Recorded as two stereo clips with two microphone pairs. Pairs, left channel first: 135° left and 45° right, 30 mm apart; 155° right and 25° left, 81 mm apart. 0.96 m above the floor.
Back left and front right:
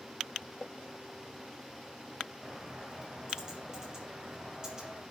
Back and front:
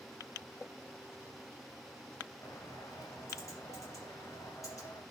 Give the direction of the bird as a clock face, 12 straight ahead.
4 o'clock.